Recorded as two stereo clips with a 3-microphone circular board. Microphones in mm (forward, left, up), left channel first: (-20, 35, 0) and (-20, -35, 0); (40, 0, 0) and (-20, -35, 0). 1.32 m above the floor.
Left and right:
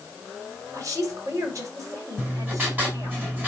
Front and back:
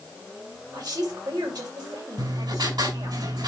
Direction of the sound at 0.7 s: 130° right.